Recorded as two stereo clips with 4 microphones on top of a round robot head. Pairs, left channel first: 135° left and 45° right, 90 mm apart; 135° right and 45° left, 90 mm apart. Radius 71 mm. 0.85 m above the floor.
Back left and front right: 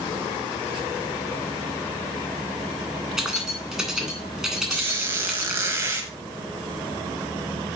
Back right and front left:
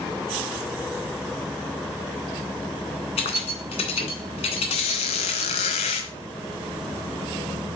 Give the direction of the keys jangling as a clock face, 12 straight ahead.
5 o'clock.